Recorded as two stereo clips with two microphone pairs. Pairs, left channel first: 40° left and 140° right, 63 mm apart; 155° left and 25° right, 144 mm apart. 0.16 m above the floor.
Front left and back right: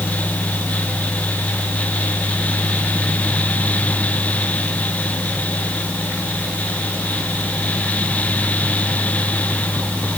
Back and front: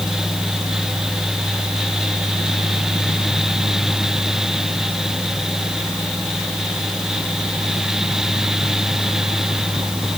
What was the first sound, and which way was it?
Only background noise.